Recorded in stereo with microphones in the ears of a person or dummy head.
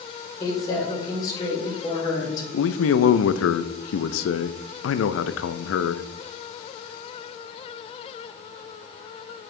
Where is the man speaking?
85° left, 0.6 m.